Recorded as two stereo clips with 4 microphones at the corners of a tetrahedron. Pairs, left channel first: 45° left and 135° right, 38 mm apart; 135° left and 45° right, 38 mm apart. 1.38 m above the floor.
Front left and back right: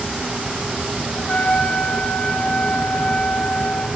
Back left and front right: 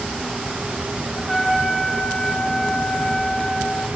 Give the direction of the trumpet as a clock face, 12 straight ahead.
10 o'clock.